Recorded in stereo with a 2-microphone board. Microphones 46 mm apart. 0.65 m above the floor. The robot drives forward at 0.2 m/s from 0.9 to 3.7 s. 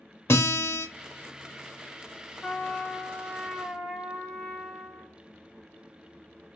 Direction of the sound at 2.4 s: 15° left (ahead or behind).